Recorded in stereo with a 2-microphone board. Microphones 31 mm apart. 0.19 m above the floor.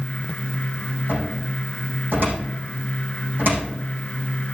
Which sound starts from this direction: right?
A cupboard door, at 1.1 s.